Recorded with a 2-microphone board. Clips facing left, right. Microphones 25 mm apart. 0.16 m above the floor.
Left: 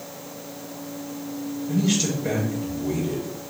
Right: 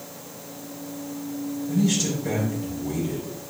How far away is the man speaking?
About 3.5 m.